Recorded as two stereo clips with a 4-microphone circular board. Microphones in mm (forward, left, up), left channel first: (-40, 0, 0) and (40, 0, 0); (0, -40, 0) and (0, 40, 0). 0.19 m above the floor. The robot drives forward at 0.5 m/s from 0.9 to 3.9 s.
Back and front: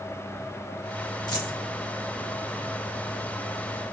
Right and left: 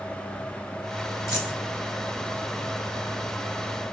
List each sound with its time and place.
1.3 s a dropped coin: 140° right, 6 m; by 1.6 s 145° right, 6 m